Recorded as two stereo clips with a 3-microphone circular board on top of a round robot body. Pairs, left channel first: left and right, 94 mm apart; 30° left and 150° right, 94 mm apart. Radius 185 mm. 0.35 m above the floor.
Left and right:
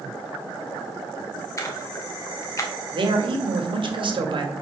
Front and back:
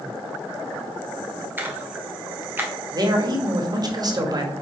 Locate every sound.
1.6 s a splash: 145° left, 1.6 m
2.9 s a man speaking: 110° right, 2.0 m